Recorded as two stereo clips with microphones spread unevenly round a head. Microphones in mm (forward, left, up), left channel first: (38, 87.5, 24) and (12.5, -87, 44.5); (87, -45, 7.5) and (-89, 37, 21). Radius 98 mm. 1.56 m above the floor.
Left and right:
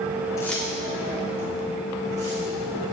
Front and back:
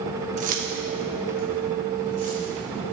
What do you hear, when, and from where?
0.4 s keys jangling: 155° left, 0.8 m; by 2.5 s 155° right, 3.5 m